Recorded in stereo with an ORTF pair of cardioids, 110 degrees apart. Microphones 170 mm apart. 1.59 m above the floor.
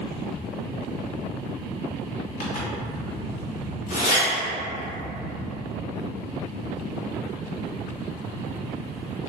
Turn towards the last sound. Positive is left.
turn(degrees=60)